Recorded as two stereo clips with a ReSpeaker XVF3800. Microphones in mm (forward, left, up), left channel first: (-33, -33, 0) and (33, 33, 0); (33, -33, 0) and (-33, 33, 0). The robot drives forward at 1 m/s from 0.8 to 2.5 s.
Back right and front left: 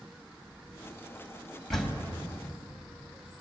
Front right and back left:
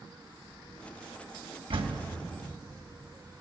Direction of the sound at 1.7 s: 140° left.